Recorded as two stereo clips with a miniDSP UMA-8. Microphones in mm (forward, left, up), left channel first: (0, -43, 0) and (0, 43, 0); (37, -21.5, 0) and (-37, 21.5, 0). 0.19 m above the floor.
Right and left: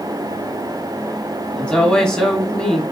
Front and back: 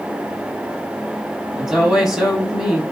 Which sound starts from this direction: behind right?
A woman speaking, at 1.6 s.